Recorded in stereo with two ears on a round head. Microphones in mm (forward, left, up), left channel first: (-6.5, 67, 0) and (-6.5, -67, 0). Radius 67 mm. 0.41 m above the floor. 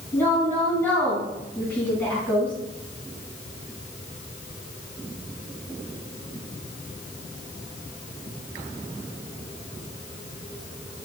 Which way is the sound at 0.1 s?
15° left (ahead or behind).